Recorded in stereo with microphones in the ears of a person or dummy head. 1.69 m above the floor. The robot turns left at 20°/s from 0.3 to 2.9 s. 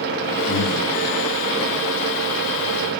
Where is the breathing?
60° left (ahead or behind), 2.5 m.